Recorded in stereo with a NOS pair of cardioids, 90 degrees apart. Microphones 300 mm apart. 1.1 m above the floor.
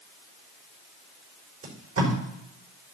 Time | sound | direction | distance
1.6 | tape being pulled | 50° right | 5 m